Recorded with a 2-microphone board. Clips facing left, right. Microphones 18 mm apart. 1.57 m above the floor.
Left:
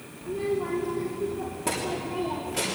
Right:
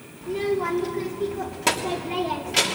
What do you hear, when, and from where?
0.2 s a child speaking: 75° right (ahead or behind), 3 m